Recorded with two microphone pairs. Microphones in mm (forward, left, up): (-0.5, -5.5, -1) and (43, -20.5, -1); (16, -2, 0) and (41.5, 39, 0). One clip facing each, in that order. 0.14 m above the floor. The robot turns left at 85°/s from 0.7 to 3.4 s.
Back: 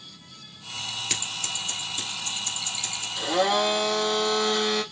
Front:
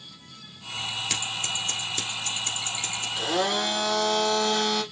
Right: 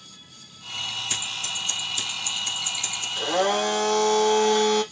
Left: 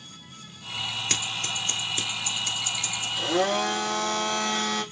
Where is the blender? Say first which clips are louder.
Back 3 dB, right 2 dB; 80° right, 4 m; by 4.8 s 100° right, 4 m.